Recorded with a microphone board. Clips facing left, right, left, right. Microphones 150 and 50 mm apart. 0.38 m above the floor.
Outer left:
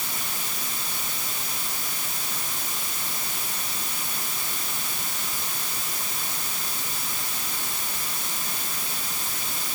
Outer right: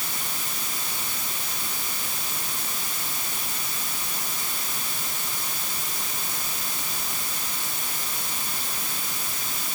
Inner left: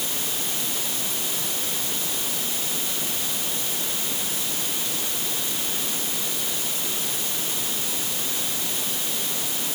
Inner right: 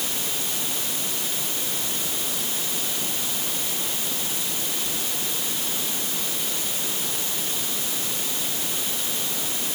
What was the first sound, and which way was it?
Only background noise.